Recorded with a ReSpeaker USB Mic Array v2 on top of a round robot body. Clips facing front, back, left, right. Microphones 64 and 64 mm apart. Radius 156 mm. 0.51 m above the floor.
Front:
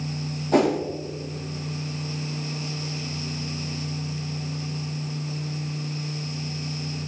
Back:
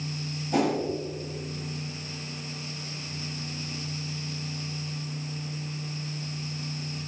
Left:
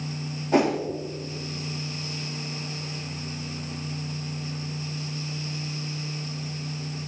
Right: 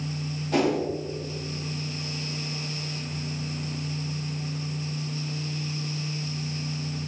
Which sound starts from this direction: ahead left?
A whoosh, at 0.5 s.